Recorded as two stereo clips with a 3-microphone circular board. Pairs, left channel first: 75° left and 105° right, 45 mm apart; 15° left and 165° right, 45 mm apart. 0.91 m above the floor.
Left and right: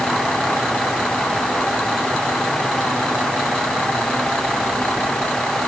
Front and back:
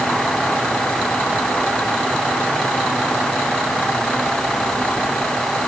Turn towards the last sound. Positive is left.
No sound to turn to.